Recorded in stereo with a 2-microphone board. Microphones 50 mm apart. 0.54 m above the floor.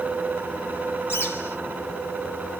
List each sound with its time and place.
1.1 s a bird: 60° left (ahead or behind), 1.9 m